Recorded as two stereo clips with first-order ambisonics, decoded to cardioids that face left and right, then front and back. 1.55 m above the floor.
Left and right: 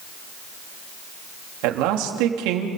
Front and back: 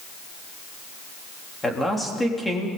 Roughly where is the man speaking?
Right.